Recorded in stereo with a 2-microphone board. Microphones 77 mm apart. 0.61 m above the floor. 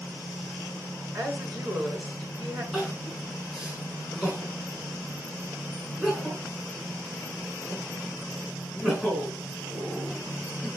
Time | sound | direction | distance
1.1 | a woman speaking | 55° right (ahead or behind) | 7 m
2.7 | crying | 15° right (ahead or behind) | 4.5 m